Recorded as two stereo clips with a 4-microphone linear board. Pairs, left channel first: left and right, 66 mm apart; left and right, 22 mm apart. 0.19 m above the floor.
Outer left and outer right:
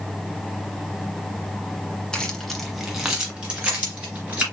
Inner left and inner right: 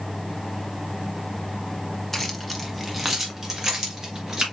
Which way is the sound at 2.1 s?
15° left (ahead or behind).